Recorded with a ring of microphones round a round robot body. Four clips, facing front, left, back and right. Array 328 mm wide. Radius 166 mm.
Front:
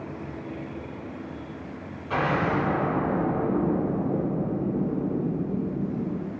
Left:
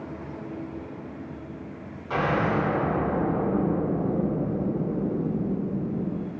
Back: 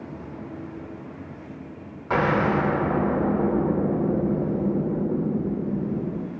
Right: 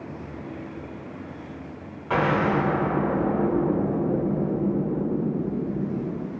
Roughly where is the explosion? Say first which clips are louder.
Right 2 dB, back 3 dB; behind right.